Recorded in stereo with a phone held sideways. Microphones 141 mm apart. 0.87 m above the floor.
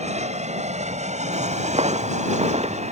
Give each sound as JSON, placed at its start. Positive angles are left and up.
{"t": 0.0, "sound": "an aircraft", "side_deg": -50}
{"t": 1.3, "sound": "footsteps", "side_deg": -45}